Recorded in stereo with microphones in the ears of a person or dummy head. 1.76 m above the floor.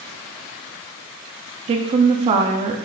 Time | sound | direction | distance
1.7 | a woman speaking | 30° right (ahead or behind) | 0.6 m